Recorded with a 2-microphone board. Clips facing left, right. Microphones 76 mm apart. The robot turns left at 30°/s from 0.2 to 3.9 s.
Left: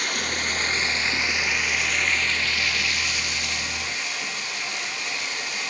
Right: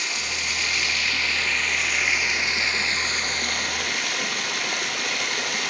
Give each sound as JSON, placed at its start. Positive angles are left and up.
{"t": 0.0, "sound": "running water", "azimuth_deg": 50, "distance_m": 1.2}